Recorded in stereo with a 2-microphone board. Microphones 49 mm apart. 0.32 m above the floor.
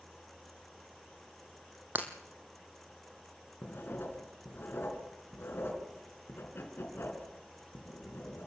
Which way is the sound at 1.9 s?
35° right (ahead or behind).